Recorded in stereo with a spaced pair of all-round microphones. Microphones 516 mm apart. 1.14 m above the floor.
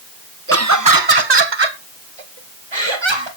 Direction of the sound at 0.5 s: 25° right (ahead or behind).